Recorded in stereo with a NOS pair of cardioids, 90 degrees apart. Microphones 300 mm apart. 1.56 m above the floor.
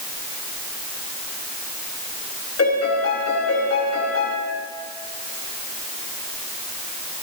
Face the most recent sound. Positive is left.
turn(degrees=55)